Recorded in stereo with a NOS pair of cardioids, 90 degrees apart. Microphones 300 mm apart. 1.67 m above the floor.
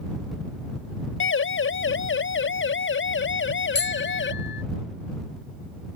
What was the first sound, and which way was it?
A siren, 40° left.